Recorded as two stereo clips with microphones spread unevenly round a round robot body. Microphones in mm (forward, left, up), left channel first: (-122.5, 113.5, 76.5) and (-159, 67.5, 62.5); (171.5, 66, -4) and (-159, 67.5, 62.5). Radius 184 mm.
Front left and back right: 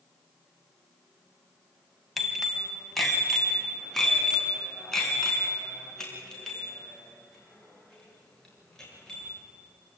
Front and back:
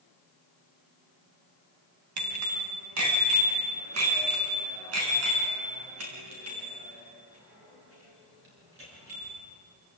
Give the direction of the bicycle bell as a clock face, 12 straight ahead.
7 o'clock.